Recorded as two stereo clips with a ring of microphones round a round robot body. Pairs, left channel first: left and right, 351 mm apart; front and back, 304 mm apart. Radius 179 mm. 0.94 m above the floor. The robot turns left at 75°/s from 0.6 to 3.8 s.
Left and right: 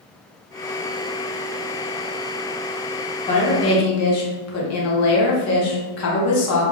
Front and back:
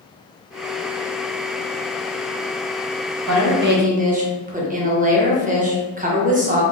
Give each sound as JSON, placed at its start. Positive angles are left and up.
{"t": 3.3, "sound": "a woman speaking", "azimuth_deg": 160, "distance_m": 0.8}